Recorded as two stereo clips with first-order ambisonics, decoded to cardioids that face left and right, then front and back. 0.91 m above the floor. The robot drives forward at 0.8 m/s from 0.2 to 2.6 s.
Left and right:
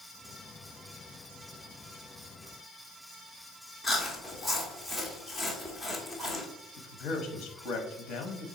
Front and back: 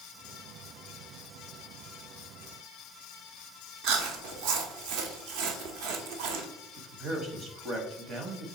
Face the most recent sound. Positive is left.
turn(degrees=125)